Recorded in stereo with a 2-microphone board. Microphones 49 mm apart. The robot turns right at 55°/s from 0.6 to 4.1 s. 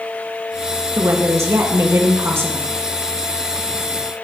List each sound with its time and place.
0.9 s a woman speaking: 135° right, 1.6 m; by 2.7 s 35° right, 1.6 m